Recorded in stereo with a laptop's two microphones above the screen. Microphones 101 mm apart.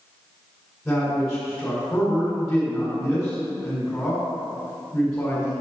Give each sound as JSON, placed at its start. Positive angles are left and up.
{"t": 0.8, "sound": "a man speaking", "side_deg": 0, "distance_m": 2.5}